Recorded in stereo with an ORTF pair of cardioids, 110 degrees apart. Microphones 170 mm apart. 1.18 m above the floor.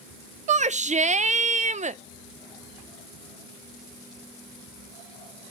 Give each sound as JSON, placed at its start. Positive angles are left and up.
{"t": 0.5, "sound": "a shout", "azimuth_deg": -45, "distance_m": 0.6}